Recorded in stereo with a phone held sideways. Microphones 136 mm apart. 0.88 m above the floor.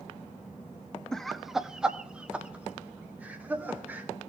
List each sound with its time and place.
1.1 s laughter: 5° left (ahead or behind), 0.6 m; by 4.1 s 15° right (ahead or behind), 2.5 m